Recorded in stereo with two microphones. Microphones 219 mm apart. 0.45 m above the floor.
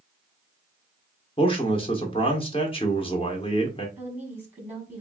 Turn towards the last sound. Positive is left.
turn(degrees=-10)  # may be behind; listen again after turning